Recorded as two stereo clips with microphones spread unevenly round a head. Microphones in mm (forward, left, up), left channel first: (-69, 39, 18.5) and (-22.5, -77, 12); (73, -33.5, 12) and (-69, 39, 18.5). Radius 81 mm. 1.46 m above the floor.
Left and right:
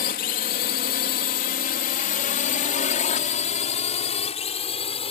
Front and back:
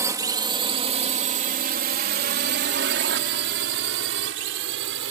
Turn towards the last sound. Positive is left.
turn(degrees=150)